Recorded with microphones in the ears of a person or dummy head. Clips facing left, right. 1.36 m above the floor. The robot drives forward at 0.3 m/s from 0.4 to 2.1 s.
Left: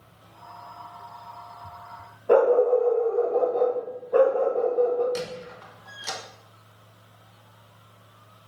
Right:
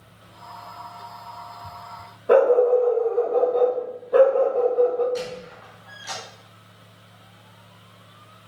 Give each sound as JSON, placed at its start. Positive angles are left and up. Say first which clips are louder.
{"t": 2.3, "sound": "a dog barking", "louder": "right 2 dB", "side_deg": -15, "distance_m": 0.7}
{"t": 5.2, "sound": "a squeak", "louder": "right 2 dB", "side_deg": 65, "distance_m": 0.8}